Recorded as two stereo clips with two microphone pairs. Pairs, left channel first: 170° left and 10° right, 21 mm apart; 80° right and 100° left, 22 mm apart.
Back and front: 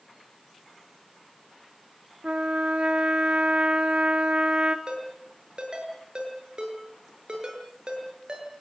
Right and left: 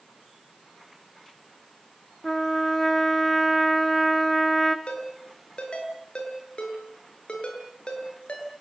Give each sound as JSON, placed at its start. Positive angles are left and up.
{"t": 2.2, "sound": "a trumpet", "azimuth_deg": -5, "distance_m": 1.4}
{"t": 4.9, "sound": "a ringtone", "azimuth_deg": -55, "distance_m": 7.0}